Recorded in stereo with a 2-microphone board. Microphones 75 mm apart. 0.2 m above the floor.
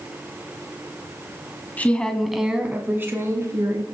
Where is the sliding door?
I don't hear a sliding door.